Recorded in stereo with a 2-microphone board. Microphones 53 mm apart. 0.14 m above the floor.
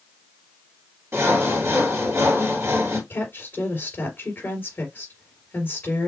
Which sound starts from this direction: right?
Sawing, at 1.1 s.